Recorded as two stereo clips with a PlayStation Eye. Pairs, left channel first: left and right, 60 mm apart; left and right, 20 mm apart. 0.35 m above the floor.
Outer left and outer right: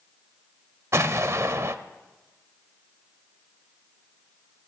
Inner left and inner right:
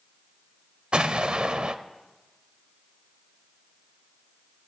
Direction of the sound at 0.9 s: 50° right (ahead or behind).